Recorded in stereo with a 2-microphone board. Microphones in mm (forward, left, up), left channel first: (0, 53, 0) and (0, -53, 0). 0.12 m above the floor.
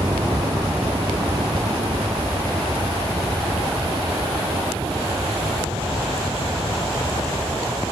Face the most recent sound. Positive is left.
turn(degrees=-60)  # may be behind; listen again after turning